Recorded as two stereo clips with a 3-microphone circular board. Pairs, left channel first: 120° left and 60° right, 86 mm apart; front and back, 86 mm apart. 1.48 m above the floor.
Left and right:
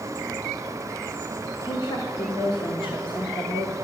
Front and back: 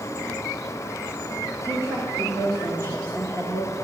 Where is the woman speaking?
130° left, 1.0 m.